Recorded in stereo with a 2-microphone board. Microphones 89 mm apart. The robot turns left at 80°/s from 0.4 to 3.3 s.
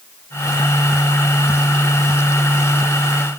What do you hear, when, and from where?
Only background noise.